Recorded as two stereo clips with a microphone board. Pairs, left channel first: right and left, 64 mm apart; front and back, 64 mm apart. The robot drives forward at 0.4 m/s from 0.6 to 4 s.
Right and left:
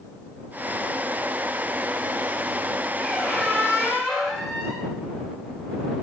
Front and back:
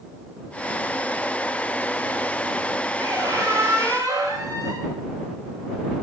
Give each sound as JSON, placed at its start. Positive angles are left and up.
{"t": 3.0, "sound": "a squeak", "azimuth_deg": -165, "distance_m": 5.0}